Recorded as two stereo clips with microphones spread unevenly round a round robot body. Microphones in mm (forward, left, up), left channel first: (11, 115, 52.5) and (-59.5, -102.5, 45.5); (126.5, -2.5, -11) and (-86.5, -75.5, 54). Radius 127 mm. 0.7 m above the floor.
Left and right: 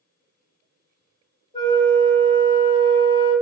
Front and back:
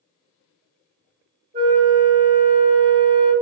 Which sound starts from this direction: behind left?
A flute, at 1.5 s.